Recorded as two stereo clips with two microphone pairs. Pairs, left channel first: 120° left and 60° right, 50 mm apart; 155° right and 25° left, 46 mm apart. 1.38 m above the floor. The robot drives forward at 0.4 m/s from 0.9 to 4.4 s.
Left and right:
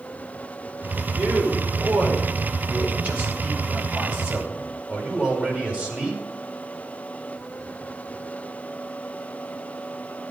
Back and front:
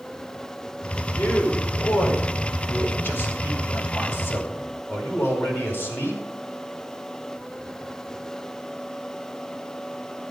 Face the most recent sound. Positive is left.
turn(degrees=-125)